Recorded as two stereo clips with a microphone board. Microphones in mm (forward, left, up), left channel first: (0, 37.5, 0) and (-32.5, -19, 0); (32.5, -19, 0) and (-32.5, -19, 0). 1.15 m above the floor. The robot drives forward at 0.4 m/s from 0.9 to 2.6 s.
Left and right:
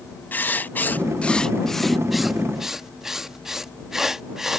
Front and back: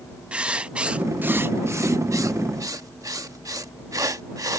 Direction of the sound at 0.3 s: 115° left.